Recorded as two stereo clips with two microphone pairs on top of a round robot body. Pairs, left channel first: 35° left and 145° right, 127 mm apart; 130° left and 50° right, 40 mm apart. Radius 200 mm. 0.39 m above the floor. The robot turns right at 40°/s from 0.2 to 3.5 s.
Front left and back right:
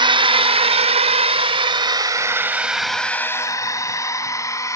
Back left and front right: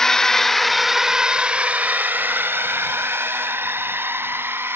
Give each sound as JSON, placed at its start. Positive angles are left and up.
{"t": 0.0, "sound": "a drone", "azimuth_deg": -155}